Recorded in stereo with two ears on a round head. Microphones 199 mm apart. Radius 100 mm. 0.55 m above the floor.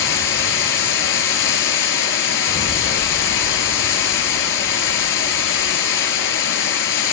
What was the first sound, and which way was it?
Running water, 55° left (ahead or behind).